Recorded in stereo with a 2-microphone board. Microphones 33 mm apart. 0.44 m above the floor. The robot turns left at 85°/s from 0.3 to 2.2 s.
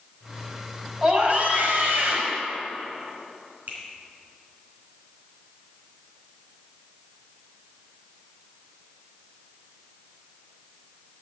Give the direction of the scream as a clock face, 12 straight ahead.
1 o'clock.